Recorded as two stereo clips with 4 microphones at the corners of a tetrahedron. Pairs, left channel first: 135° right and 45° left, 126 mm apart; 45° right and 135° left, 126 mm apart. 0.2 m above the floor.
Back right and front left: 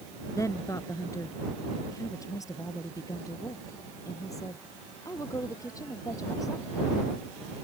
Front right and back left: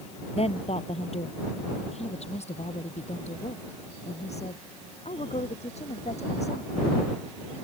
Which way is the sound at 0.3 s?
70° right.